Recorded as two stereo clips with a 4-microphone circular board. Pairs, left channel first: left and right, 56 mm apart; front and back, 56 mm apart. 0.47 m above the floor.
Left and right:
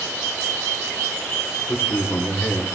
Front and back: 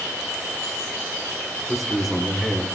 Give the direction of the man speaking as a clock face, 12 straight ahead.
9 o'clock.